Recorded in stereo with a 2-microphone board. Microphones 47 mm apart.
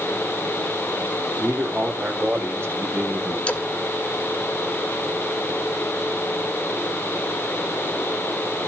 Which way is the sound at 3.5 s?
25° left (ahead or behind).